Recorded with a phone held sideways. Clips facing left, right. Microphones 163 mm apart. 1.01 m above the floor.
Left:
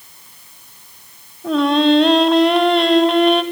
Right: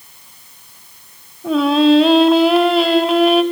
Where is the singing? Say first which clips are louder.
Right 2 dB; 5° right (ahead or behind), 1.4 m.